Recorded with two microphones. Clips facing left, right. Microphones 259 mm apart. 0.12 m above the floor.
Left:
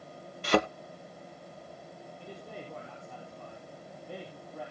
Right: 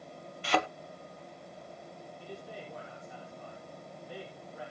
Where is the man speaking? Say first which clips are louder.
Even; 60° left (ahead or behind), 4.5 m.